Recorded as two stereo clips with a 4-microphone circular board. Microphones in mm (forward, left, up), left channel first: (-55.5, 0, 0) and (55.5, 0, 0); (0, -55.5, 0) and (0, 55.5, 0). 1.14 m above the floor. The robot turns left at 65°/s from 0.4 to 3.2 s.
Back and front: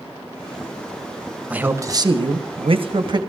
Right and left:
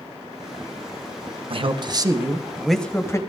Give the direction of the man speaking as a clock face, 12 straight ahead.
9 o'clock.